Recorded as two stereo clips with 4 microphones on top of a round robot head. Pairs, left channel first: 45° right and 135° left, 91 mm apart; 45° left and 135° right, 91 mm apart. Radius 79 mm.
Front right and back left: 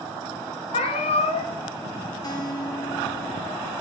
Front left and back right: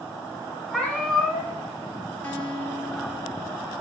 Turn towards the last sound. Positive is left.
turn(degrees=-20)